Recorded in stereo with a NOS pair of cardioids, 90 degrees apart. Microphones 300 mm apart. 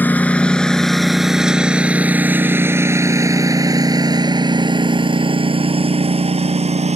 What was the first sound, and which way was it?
A lawn mower, 5° left.